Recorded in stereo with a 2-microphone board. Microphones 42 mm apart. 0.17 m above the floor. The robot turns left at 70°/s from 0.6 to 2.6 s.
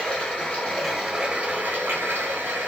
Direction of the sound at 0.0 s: 25° left.